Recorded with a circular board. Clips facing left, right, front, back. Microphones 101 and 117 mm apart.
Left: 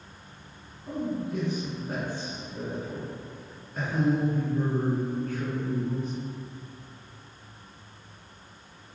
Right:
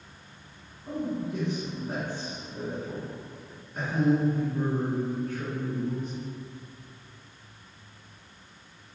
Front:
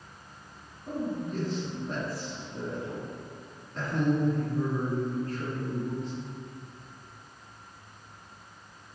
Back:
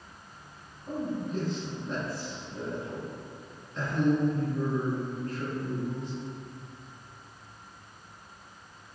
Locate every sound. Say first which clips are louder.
0.9 s a man speaking: even, even; 35° right, 1.9 m